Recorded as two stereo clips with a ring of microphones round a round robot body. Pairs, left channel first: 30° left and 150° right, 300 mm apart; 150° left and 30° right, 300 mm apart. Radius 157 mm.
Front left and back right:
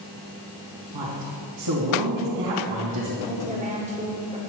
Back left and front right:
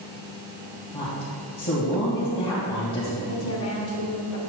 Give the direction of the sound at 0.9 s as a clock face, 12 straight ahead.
5 o'clock.